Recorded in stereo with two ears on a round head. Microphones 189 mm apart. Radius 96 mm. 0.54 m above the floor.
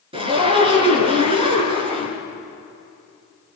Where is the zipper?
25° right (ahead or behind), 5.5 m.